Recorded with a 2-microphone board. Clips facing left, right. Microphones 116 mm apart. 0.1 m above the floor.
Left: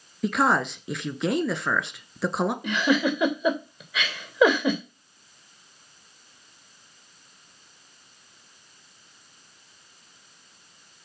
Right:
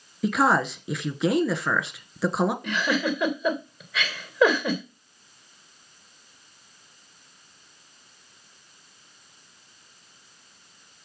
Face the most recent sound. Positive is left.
turn(degrees=10)  # may be behind; listen again after turning